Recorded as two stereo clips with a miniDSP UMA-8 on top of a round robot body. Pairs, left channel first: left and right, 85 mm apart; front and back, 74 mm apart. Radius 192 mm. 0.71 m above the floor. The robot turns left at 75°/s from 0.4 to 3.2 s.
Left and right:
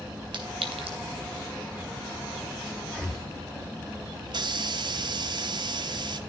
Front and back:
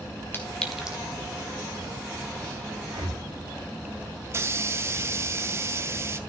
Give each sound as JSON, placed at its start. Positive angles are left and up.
{"t": 0.3, "sound": "a clink", "azimuth_deg": -65, "distance_m": 3.0}
{"t": 2.9, "sound": "breathing", "azimuth_deg": -175, "distance_m": 1.8}
{"t": 4.2, "sound": "a hiss", "azimuth_deg": -125, "distance_m": 0.9}